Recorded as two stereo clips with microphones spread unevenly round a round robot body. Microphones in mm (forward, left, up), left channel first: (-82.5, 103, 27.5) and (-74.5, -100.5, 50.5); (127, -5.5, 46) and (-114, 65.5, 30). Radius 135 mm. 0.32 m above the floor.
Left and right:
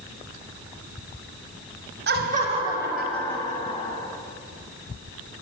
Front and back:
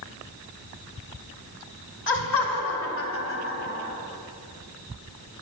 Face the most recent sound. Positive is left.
turn(degrees=30)